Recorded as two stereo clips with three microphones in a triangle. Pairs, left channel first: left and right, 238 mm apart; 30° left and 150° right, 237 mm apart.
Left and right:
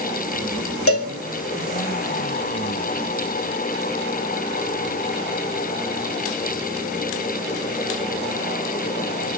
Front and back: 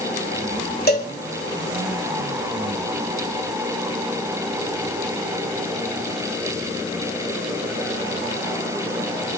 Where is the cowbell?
75° left, 2.5 m.